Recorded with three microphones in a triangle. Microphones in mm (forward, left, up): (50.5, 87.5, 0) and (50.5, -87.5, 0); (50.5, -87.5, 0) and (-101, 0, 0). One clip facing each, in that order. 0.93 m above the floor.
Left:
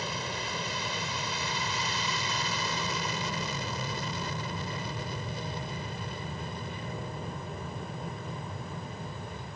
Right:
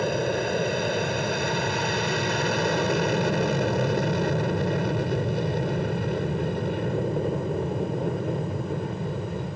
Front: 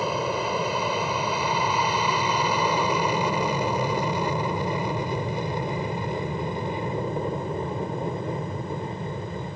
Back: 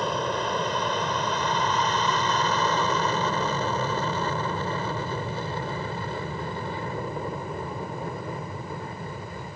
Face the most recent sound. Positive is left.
turn(degrees=-95)